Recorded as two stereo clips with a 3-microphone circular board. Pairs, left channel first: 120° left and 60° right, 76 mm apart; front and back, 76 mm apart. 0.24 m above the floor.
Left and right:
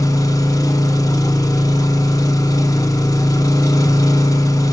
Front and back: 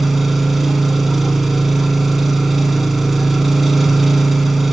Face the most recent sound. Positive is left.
turn(degrees=90)